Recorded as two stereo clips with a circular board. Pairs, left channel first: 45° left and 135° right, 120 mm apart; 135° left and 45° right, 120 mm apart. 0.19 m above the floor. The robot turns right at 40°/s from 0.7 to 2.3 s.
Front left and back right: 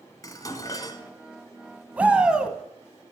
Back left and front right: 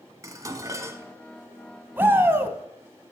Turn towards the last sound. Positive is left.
turn(degrees=-65)